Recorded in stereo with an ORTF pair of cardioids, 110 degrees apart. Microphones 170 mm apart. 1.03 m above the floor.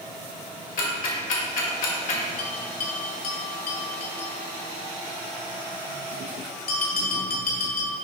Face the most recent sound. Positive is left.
turn(degrees=60)